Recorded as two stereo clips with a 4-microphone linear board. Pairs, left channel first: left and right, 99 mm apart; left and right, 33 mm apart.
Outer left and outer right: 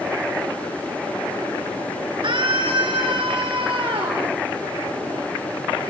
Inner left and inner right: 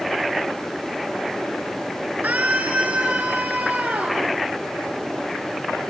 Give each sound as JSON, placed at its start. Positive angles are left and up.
{"t": 2.2, "sound": "a scream", "side_deg": -70, "distance_m": 3.5}